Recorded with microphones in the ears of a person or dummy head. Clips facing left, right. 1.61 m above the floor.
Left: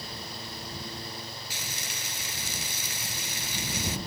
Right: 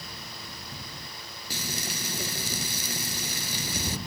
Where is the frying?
35° right (ahead or behind).